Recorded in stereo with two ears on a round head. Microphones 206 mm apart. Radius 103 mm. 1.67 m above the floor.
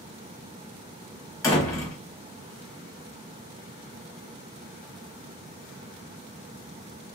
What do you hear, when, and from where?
1.4 s a door slam: 15° left (ahead or behind), 1.4 m